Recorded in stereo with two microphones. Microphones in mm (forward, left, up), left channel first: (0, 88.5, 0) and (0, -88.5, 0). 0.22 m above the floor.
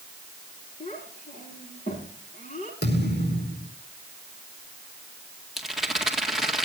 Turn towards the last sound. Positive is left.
turn(degrees=0)  # may be behind; listen again after turning